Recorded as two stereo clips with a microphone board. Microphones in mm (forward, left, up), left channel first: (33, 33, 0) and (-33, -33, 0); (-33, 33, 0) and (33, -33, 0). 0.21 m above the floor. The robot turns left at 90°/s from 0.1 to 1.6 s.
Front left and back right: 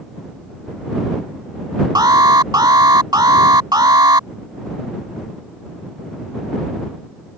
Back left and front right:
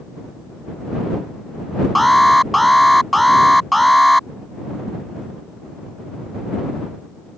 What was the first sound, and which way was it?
An alarm, 135° right.